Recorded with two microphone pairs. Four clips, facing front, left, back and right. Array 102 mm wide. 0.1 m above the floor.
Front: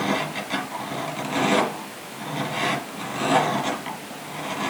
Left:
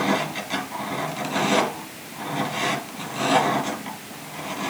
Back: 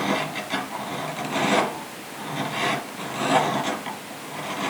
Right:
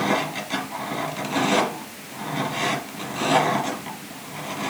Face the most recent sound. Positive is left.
No sound to turn to.